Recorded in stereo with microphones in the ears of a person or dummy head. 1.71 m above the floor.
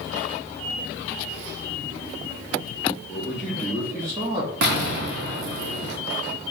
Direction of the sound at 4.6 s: 60° right (ahead or behind).